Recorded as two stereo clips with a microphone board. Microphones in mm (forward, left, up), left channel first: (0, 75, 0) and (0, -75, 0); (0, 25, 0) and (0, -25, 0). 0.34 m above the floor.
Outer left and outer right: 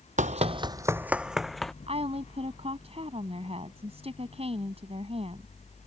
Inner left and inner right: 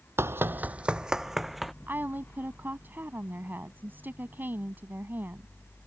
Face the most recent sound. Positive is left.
turn(degrees=-45)  # may be behind; listen again after turning